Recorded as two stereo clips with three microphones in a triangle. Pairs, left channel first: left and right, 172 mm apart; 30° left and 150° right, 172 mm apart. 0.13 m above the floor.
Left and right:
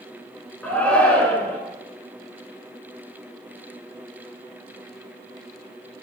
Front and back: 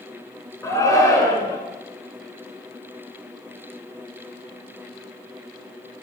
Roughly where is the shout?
Ahead left.